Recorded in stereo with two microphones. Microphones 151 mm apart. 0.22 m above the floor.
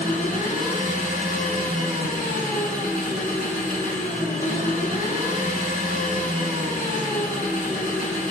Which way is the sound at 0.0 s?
60° left (ahead or behind).